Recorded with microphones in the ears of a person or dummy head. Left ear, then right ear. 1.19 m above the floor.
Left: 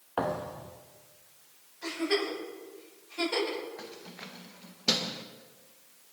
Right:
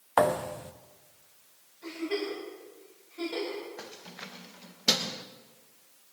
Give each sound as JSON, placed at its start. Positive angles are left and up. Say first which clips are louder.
{"t": 0.2, "sound": "a thud", "louder": "right 7 dB", "side_deg": -40, "distance_m": 0.6}
{"t": 1.8, "sound": "a giggle", "louder": "left 3 dB", "side_deg": 55, "distance_m": 8.0}
{"t": 3.8, "sound": "keys jangling", "louder": "right 1 dB", "side_deg": -15, "distance_m": 0.7}